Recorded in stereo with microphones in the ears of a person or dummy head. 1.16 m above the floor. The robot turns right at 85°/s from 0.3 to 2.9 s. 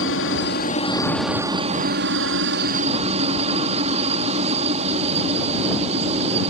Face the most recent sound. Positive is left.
turn(degrees=-40)